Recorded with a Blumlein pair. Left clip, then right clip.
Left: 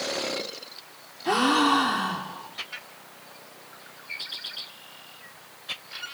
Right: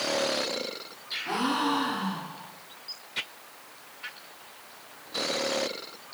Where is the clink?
No clink in this recording.